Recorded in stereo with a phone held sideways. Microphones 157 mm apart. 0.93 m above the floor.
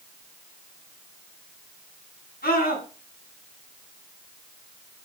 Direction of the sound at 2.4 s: 80° left.